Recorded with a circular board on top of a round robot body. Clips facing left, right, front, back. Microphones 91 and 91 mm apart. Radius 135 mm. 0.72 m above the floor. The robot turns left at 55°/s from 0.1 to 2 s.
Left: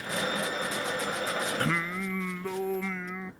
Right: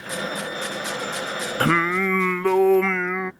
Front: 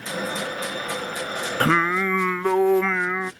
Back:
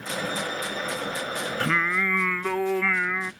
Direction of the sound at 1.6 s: 45° right.